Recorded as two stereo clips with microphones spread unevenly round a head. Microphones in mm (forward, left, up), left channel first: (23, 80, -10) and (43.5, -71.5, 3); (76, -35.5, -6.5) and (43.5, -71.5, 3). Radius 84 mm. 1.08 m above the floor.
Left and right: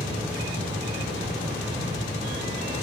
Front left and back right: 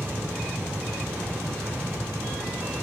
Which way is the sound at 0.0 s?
155° right.